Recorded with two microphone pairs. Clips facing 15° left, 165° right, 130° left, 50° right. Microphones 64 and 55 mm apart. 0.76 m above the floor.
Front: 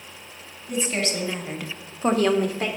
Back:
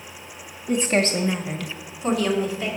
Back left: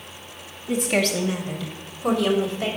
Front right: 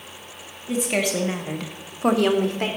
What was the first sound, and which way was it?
A woman speaking, 145° right.